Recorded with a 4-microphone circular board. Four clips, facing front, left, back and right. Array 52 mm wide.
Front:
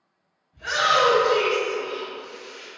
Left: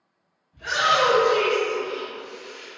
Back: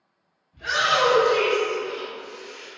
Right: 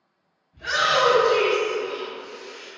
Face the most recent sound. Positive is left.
turn(degrees=-45)